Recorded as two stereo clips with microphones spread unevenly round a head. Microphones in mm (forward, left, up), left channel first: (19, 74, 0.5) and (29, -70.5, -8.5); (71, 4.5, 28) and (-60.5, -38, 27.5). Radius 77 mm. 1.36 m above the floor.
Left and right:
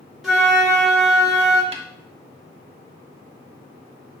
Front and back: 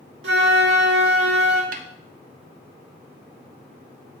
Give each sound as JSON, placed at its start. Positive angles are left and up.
{"t": 0.2, "sound": "a flute", "azimuth_deg": -175, "distance_m": 1.8}
{"t": 1.7, "sound": "a snare drum", "azimuth_deg": -140, "distance_m": 0.8}